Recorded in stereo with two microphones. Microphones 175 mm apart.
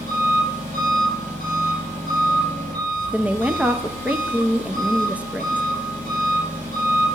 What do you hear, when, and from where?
0.0 s an engine running: 50° right (ahead or behind), 5.5 m
3.1 s a woman speaking: 5° right (ahead or behind), 0.8 m